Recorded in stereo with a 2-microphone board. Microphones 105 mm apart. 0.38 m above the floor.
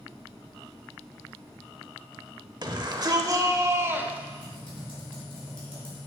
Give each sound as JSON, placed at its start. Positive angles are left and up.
{"t": 2.6, "sound": "a shout", "side_deg": -45, "distance_m": 1.2}
{"t": 4.4, "sound": "typing on a keyboard", "side_deg": 55, "distance_m": 3.5}